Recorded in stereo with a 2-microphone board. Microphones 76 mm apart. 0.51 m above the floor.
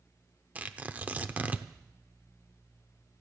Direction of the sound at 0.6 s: 20° right (ahead or behind).